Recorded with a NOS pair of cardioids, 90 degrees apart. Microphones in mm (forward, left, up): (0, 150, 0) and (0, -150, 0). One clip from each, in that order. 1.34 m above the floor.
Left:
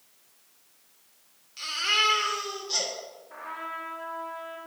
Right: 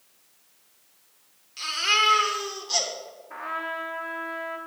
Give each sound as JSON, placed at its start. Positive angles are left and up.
{"t": 1.6, "sound": "a baby crying", "azimuth_deg": -20, "distance_m": 2.5}
{"t": 3.3, "sound": "a trumpet", "azimuth_deg": -45, "distance_m": 1.4}